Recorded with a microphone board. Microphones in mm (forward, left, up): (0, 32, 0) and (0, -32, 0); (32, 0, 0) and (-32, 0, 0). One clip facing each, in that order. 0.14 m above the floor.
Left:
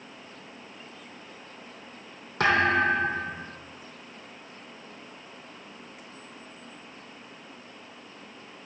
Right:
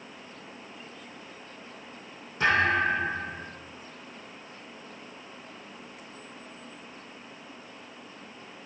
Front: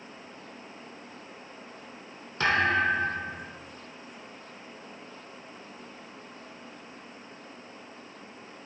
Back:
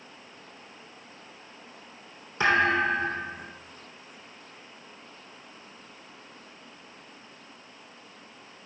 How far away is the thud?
About 2.0 m.